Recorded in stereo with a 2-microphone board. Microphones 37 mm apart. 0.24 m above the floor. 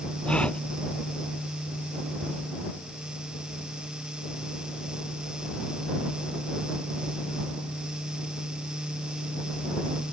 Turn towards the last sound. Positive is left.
turn(degrees=30)  # may be behind; listen again after turning